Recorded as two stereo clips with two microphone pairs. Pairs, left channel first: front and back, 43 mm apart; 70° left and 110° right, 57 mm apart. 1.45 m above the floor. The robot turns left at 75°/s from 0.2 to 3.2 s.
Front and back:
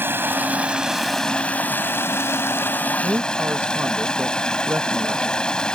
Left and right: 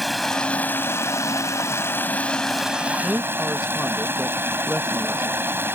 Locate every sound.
0.0 s running water: 155° left; by 5.8 s 70° right
3.0 s a man speaking: 175° left; by 5.7 s 165° left